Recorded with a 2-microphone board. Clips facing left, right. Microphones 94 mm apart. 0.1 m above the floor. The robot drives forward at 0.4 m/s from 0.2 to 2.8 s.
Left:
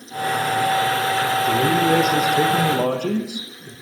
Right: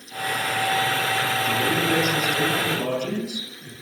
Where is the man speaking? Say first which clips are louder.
Left 7 dB; 55° left (ahead or behind), 5 m; by 3.7 s 50° left (ahead or behind), 5.5 m.